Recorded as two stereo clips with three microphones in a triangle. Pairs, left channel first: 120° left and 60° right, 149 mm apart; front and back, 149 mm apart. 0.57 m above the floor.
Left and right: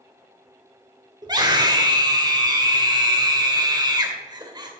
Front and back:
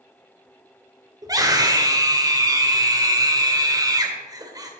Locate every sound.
1.2 s a scream: 120° right, 2.5 m